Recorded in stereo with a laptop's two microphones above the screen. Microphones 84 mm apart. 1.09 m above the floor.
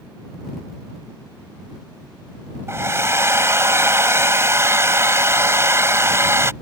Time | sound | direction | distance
2.7 | a hair dryer | 35° right (ahead or behind) | ?